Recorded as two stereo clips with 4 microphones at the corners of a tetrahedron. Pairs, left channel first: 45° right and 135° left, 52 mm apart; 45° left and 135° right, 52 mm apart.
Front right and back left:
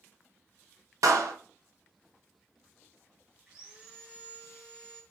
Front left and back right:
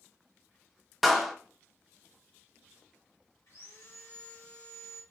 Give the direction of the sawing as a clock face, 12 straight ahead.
10 o'clock.